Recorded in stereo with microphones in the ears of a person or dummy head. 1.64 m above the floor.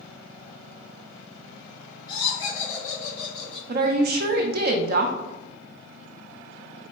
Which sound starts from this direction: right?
A woman speaking, at 3.7 s.